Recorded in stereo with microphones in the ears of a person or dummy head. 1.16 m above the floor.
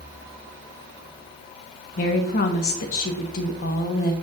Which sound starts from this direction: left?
A woman speaking, at 2.0 s.